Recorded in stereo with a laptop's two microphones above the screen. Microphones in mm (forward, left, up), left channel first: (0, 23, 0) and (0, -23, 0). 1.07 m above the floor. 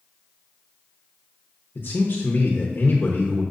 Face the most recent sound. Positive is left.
turn(degrees=50)  # may be behind; listen again after turning